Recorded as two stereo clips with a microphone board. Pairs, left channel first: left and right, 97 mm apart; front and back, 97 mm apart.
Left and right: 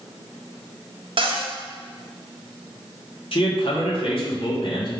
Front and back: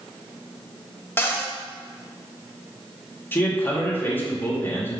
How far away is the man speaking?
About 2 m.